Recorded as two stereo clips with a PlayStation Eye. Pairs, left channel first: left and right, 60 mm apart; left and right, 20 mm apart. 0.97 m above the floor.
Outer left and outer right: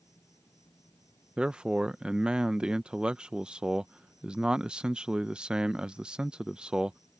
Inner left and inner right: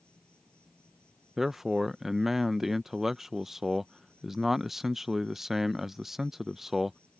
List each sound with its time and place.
0.0 s an insect: 60° left (ahead or behind)
1.4 s a man speaking: 15° right (ahead or behind)